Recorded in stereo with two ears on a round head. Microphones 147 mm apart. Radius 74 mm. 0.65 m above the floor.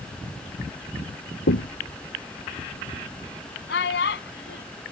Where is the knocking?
80° left.